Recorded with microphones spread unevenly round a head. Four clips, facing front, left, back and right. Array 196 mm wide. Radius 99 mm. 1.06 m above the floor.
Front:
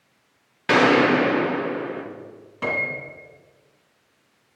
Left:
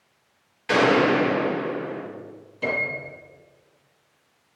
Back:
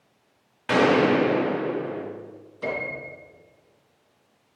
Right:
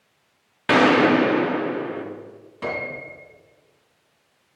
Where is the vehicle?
No vehicle in this recording.